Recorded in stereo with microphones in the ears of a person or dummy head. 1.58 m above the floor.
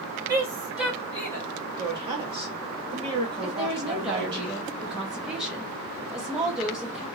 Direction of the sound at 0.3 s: 15° right (ahead or behind).